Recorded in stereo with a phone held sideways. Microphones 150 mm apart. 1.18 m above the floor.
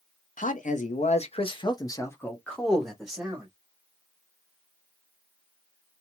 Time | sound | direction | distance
0.4 | a man speaking | 60° left (ahead or behind) | 0.9 m